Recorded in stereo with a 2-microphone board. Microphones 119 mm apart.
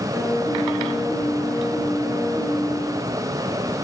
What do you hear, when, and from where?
0.1 s a piano: 20° right (ahead or behind), 4.5 m